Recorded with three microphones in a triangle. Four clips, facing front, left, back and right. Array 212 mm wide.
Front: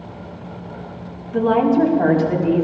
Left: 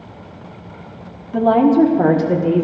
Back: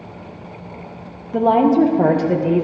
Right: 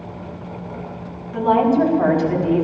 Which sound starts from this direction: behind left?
A woman speaking, at 1.3 s.